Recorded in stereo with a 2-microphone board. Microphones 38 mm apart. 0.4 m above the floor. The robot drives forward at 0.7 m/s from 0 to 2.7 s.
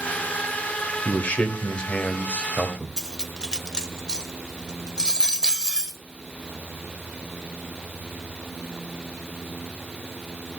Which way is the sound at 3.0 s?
20° left (ahead or behind).